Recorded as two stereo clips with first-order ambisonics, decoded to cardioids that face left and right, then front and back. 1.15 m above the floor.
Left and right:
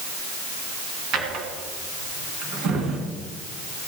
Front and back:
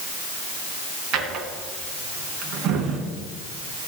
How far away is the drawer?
About 3 m.